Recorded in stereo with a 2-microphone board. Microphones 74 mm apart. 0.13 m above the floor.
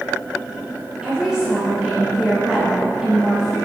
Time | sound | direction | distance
1.0 | a woman speaking | 10° right (ahead or behind) | 1.5 m